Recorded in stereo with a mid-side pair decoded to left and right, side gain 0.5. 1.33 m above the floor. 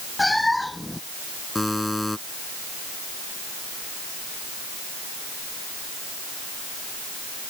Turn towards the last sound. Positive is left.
turn(degrees=5)